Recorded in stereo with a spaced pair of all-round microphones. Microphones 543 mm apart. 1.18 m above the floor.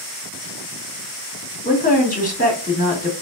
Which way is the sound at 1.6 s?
15° left (ahead or behind).